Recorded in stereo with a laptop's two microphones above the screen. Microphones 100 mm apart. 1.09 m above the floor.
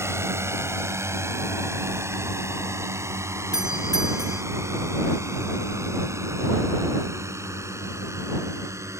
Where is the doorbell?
5° right (ahead or behind).